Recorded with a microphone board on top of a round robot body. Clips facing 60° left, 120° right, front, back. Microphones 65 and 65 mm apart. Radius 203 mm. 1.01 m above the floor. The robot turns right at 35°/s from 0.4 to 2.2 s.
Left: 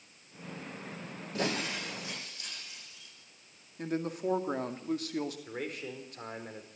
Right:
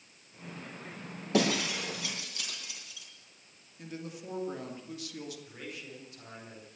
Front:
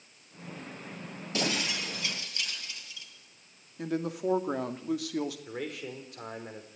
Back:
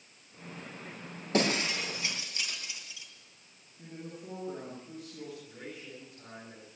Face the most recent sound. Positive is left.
turn(degrees=20)